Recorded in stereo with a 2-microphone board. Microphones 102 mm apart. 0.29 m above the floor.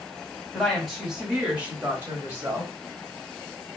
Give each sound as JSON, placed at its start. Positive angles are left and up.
{"t": 0.5, "sound": "a woman speaking", "side_deg": 0, "distance_m": 2.0}